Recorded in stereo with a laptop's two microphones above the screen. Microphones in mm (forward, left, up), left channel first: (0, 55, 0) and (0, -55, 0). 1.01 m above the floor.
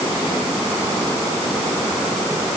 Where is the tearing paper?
No tearing paper in this recording.